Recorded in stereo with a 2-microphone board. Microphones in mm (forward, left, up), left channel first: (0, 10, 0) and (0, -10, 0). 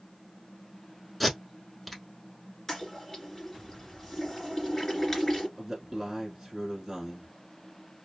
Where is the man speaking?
10° right (ahead or behind), 1.2 m.